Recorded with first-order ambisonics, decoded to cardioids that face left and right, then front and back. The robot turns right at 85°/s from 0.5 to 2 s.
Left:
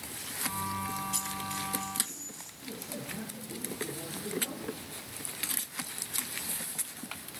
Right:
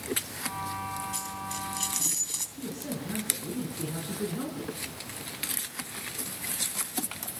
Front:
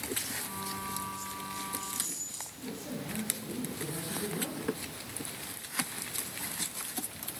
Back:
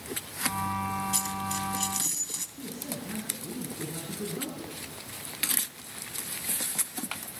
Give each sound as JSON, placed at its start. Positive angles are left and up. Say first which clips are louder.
{"t": 1.1, "sound": "a dropped coin", "louder": "even, back 7 dB", "azimuth_deg": 165, "distance_m": 2.5}
{"t": 2.6, "sound": "a man speaking", "louder": "right 4 dB, back 2 dB", "azimuth_deg": -115, "distance_m": 8.5}